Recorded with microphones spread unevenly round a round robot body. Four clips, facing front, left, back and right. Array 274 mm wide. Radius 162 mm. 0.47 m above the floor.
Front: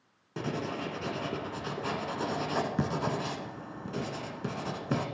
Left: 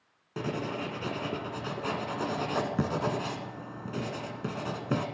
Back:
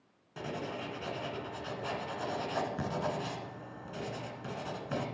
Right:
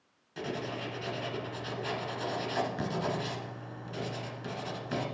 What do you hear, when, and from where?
0.4 s writing: 45° left, 1.7 m